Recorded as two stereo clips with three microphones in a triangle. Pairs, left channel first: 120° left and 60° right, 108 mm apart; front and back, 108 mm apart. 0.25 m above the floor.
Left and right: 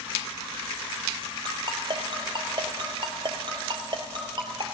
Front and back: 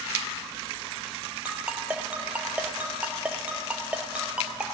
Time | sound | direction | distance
1.4 | a ringtone | 105° right | 2 m